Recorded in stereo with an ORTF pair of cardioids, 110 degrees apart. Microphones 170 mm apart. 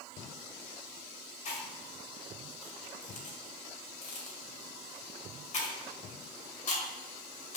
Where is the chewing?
50° left, 1.9 m.